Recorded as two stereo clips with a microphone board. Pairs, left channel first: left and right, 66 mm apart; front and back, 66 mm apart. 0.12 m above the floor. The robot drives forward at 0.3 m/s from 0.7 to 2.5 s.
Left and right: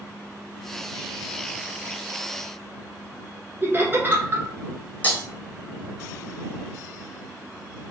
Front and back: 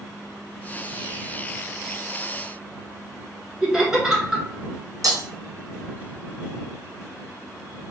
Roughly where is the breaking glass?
Behind left.